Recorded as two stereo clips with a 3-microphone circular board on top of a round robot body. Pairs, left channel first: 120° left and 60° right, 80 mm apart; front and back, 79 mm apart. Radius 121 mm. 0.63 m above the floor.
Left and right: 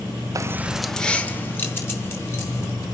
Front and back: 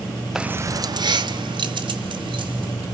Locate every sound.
0.3 s keys jangling: 95° right, 0.6 m; by 2.7 s 175° left, 2.5 m